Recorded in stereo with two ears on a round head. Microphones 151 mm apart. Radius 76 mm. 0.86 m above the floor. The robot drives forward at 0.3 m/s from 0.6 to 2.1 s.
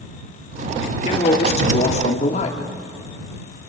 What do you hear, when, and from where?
1.1 s a man speaking: 35° left (ahead or behind), 2.5 m; by 2.6 s 40° left (ahead or behind), 2 m